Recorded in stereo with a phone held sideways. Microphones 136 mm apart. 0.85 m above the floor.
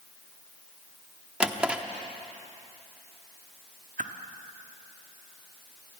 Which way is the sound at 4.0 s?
80° right.